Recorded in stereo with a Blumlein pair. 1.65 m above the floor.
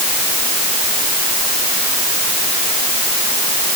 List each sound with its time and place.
Only background noise.